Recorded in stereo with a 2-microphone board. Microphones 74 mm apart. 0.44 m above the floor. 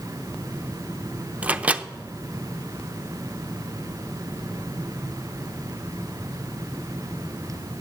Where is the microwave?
15° right (ahead or behind), 0.5 m.